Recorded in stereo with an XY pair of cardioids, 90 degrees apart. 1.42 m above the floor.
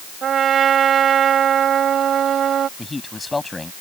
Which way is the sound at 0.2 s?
65° right.